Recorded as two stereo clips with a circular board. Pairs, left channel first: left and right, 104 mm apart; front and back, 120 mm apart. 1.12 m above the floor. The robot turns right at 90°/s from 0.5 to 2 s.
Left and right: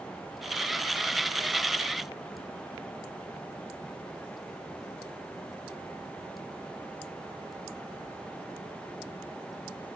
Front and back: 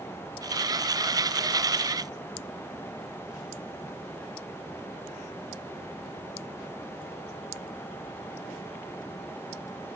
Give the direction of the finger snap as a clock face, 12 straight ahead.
I don't hear a finger snap.